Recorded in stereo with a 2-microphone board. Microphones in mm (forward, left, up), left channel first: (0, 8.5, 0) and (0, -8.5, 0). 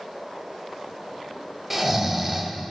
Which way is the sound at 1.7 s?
10° right (ahead or behind).